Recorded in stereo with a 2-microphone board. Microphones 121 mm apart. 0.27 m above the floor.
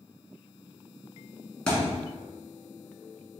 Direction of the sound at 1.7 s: 5° left (ahead or behind).